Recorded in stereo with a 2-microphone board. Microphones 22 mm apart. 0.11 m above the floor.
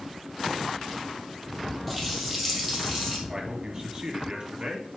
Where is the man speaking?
40° right (ahead or behind), 1.9 m.